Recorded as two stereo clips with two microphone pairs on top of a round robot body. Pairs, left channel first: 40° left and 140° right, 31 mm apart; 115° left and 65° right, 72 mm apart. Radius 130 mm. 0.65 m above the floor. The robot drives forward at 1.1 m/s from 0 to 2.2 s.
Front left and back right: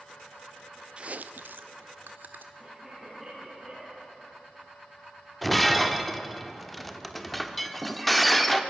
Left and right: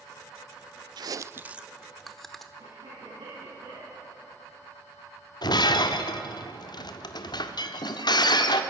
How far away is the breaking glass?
About 1.2 m.